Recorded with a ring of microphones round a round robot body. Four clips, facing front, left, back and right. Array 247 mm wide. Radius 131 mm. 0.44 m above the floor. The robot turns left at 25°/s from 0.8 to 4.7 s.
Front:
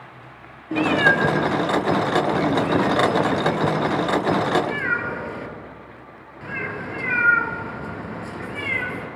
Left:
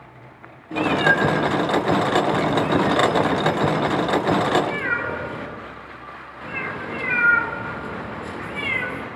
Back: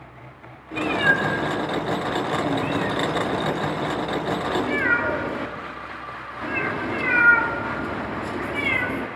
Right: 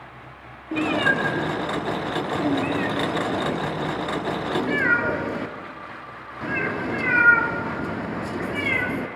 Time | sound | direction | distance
0.7 | a cat meowing | 5° left | 2.5 m